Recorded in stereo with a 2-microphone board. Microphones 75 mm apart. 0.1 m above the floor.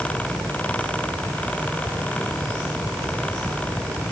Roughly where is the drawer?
I don't hear a drawer.